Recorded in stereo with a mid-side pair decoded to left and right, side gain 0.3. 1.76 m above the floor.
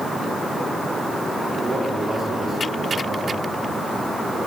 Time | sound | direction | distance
1.6 | a man speaking | 50° right | 4.5 m